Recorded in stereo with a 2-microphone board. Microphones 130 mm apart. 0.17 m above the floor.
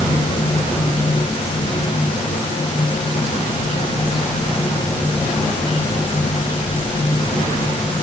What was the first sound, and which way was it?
Only background noise.